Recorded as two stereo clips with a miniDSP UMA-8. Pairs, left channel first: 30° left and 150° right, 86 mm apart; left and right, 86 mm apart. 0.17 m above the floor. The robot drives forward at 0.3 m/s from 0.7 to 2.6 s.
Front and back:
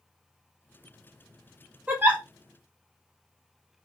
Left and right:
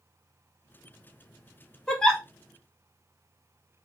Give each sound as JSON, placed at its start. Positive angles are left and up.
{"t": 1.9, "sound": "a giggle", "azimuth_deg": 160, "distance_m": 0.6}